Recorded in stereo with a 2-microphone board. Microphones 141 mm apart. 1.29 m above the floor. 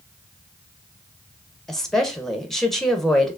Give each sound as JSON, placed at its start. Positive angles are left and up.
{"t": 1.7, "sound": "a woman speaking", "side_deg": 5, "distance_m": 1.0}